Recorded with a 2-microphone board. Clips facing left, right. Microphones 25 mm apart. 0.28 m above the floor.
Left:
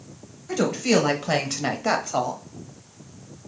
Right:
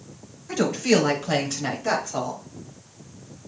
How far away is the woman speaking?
About 1.1 m.